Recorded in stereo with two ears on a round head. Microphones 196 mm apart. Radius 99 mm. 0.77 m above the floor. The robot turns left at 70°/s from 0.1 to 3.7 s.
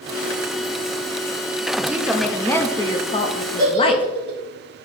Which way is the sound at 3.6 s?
15° right (ahead or behind).